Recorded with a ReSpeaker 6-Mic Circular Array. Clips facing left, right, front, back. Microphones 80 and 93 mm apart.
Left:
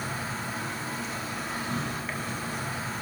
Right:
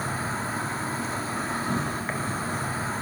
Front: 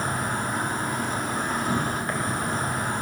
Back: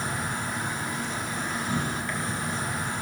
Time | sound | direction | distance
0.0 | an insect | 40° right | 0.8 m